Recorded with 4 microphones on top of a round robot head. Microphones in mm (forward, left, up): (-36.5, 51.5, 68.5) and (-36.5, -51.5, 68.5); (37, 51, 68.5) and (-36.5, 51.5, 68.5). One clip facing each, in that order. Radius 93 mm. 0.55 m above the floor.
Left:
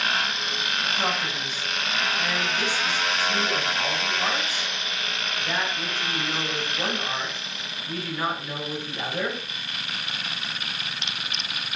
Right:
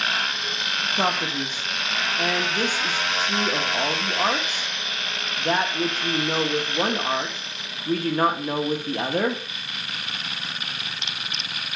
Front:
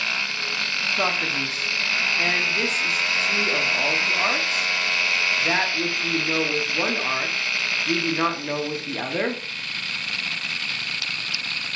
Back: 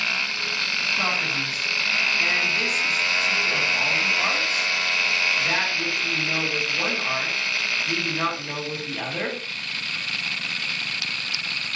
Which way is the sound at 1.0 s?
65° right.